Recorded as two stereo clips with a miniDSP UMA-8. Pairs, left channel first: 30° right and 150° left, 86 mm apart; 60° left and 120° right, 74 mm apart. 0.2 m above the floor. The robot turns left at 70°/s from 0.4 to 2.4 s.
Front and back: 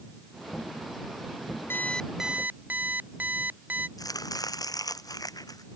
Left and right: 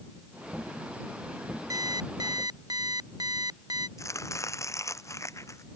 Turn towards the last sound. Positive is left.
turn(degrees=15)